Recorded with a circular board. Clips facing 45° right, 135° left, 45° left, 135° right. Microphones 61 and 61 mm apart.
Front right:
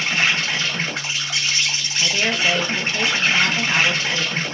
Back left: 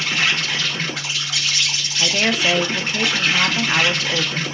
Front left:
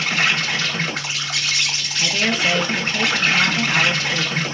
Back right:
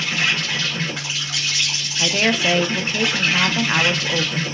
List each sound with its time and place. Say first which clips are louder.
0.0 s an insect: front right 1 dB, front left 2 dB; 15° left, 2 m
2.0 s a woman speaking: back left 1 dB, back right 1 dB; 175° right, 0.7 m